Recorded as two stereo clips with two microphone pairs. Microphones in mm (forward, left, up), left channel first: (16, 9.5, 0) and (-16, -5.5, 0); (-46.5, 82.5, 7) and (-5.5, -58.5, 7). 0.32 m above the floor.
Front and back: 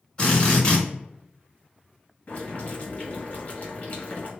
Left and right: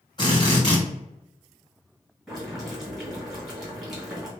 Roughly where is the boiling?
Ahead.